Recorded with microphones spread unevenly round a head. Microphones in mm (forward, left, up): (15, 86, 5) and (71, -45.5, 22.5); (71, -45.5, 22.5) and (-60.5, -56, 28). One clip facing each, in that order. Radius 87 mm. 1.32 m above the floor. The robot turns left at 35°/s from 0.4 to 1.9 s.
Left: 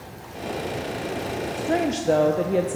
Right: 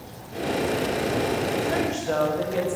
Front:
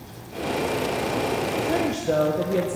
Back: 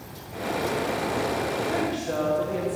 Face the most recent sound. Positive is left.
turn(degrees=60)